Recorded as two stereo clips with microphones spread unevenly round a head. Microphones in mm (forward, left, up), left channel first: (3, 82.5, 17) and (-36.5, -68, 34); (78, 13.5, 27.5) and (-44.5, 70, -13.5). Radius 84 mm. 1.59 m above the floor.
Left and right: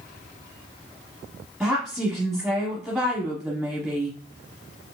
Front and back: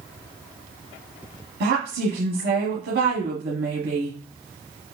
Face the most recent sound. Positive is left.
turn(degrees=165)